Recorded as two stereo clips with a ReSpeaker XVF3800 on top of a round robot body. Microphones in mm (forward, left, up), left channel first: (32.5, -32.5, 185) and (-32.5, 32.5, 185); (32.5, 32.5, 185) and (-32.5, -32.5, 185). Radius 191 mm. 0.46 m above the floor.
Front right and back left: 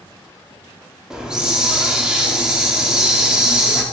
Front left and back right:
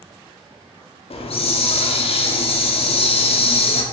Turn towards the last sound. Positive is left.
turn(degrees=50)